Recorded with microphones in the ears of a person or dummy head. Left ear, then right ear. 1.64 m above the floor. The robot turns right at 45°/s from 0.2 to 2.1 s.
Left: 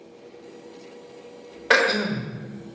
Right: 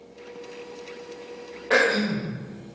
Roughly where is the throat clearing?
Left.